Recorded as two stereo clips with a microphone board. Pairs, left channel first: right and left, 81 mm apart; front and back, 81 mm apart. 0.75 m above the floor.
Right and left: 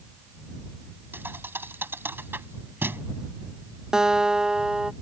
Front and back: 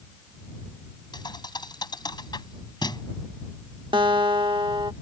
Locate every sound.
1.1 s a thud: 25° left
3.9 s a guitar: 170° left